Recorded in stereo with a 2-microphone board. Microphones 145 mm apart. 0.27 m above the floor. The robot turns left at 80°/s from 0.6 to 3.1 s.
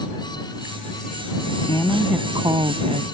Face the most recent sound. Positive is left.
turn(degrees=-90)